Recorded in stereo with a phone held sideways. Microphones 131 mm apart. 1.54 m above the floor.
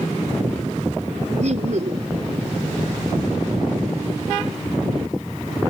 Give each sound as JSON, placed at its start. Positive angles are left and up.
{"t": 1.4, "sound": "laughter", "side_deg": -65}